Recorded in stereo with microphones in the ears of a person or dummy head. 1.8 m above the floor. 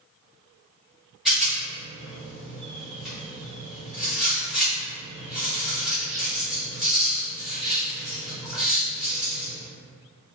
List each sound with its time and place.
1.2 s a rattle: centre (ahead or behind), 1.5 m